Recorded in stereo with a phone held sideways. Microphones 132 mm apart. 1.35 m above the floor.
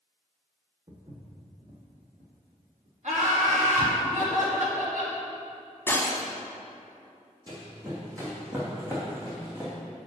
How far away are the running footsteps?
About 2.5 m.